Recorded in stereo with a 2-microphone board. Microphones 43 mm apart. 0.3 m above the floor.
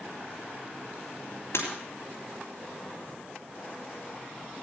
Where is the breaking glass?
70° left (ahead or behind), 4 m.